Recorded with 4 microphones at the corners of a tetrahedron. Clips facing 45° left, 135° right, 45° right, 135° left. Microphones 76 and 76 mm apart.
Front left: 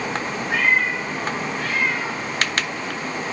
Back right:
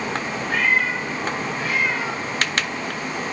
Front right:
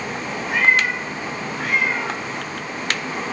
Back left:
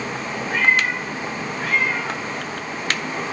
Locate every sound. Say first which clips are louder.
0.5 s a cat meowing: front left 1 dB, front right 1 dB; 40° right, 3 m; by 2.2 s 75° right, 3 m